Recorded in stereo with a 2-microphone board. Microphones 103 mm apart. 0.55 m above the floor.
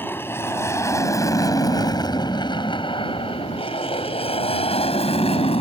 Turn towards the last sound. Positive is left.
turn(degrees=65)  # may be behind; listen again after turning